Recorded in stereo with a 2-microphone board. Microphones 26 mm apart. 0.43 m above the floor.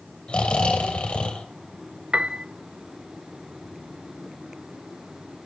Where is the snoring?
45° left (ahead or behind), 2.5 m.